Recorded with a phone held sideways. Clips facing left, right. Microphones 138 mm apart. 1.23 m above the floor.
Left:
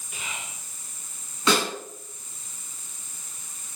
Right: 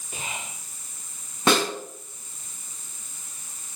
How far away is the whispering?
About 0.6 m.